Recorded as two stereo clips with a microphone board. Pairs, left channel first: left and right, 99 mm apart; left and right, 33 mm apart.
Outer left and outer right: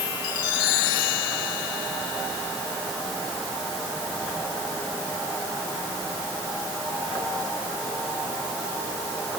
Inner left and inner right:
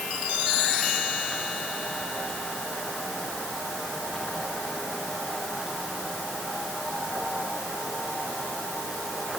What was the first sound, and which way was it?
Only background noise.